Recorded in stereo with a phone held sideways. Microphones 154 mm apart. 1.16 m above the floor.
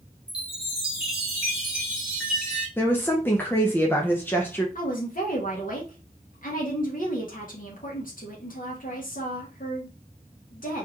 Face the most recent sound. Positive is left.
turn(degrees=65)  # may be behind; listen again after turning